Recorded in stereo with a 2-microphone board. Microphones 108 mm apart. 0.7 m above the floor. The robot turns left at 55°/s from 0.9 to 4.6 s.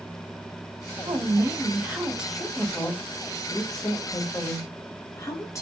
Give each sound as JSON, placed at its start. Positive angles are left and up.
{"t": 1.1, "sound": "a woman speaking", "azimuth_deg": -105, "distance_m": 0.8}